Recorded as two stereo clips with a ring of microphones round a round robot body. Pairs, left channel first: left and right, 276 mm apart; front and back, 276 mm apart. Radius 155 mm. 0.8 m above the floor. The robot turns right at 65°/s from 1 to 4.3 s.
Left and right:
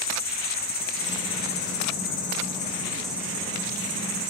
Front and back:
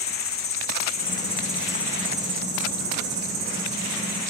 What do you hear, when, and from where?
0.0 s an insect: 45° left, 2.5 m; by 4.3 s 100° right, 2.5 m